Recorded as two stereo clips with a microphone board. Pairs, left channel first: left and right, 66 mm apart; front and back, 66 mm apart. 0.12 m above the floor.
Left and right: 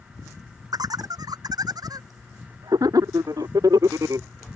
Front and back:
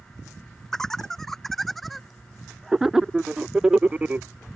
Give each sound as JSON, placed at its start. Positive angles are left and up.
{"t": 0.7, "sound": "laughter", "azimuth_deg": -85}